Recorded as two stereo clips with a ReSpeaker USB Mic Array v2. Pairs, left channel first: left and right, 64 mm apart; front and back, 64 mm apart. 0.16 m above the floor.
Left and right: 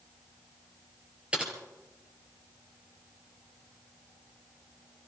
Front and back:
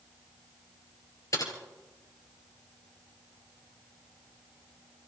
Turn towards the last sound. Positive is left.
turn(degrees=-20)